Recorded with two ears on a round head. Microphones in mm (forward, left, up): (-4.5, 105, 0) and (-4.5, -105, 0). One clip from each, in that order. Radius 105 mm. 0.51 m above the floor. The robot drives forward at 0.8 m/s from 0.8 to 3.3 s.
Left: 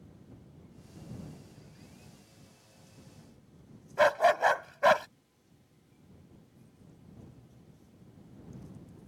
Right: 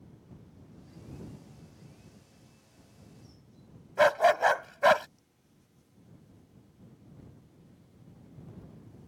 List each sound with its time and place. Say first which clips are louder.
4.0 s a dog barking: right 1 dB; 5° right (ahead or behind)